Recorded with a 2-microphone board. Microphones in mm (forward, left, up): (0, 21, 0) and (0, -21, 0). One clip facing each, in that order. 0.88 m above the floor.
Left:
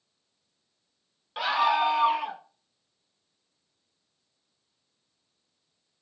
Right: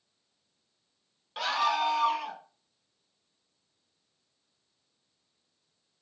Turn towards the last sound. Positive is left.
turn(degrees=25)  # may be behind; listen again after turning